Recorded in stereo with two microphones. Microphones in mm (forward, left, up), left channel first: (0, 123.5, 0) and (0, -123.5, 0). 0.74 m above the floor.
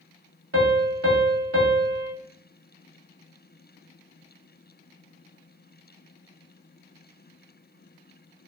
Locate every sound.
0.5 s a piano: 55° right (ahead or behind), 0.9 m